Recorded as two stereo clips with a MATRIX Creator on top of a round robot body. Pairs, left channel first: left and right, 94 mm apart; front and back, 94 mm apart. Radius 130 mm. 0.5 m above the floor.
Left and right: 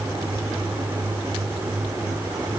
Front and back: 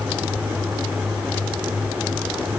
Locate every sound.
Only background noise.